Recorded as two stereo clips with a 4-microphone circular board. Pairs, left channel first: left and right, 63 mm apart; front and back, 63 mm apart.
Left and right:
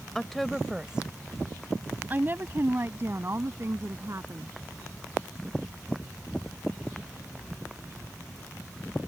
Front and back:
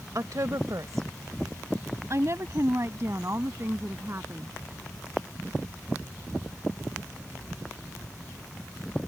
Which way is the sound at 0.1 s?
175° left.